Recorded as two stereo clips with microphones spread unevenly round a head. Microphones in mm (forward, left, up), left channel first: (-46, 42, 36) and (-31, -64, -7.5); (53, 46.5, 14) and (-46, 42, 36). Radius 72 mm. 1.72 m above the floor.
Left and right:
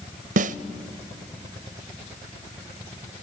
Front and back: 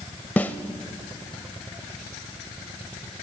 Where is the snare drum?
80° right, 0.6 m.